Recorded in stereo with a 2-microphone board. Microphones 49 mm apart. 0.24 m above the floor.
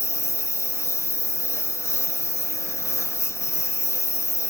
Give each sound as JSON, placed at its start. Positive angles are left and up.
{"t": 0.0, "sound": "a lawn mower", "side_deg": 75}